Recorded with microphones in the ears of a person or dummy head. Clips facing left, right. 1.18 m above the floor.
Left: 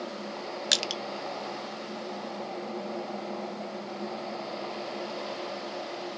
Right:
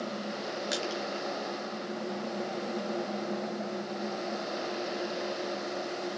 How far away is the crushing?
About 0.7 m.